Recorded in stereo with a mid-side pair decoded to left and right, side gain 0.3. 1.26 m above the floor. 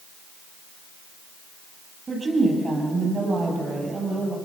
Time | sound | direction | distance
2.1 | a woman speaking | 50° right | 8.5 m